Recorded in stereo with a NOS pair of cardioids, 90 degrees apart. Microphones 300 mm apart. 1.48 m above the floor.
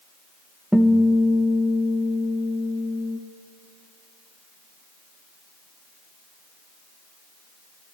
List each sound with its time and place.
0.7 s a guitar: straight ahead, 1.2 m